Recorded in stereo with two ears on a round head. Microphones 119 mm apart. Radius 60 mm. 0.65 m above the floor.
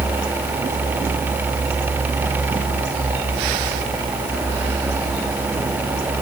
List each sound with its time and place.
Only background noise.